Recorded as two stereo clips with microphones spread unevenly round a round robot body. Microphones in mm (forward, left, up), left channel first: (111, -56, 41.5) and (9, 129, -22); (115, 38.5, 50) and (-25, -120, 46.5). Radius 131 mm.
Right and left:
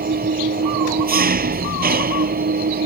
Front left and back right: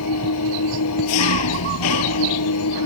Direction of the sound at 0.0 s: 70° left.